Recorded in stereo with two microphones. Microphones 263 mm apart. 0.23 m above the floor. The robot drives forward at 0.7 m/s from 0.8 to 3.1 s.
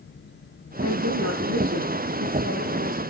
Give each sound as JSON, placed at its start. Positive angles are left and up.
{"t": 0.8, "sound": "a woman speaking", "side_deg": -70, "distance_m": 6.5}